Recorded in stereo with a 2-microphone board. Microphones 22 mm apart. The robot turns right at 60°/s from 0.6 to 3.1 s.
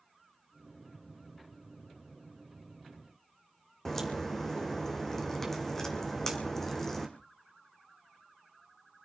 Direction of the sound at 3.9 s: 20° left (ahead or behind).